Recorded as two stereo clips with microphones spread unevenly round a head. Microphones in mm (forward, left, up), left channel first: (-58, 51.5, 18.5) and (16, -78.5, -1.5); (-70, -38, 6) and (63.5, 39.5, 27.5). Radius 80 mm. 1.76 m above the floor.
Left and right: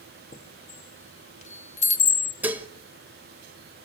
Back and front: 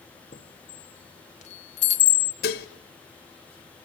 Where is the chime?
165° left, 1.6 m.